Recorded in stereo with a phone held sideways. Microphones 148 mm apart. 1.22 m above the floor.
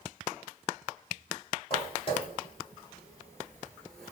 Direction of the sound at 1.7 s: 45° left (ahead or behind).